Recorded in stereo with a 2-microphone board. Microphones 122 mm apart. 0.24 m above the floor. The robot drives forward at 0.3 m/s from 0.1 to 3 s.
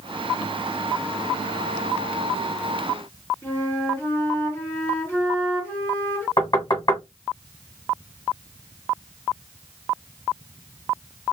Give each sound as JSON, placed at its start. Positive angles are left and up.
{"t": 3.4, "sound": "a flute", "side_deg": 20, "distance_m": 2.0}
{"t": 6.4, "sound": "knocking", "side_deg": 40, "distance_m": 1.5}